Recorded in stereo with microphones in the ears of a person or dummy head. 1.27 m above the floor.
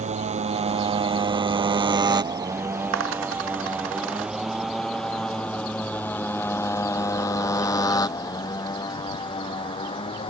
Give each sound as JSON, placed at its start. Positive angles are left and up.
{"t": 0.0, "sound": "a motorcycle", "side_deg": -45}
{"t": 2.9, "sound": "a dropped coin", "side_deg": -80}